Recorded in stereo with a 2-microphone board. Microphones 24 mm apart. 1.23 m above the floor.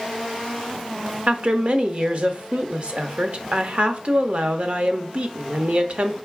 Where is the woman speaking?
55° right (ahead or behind), 0.9 m.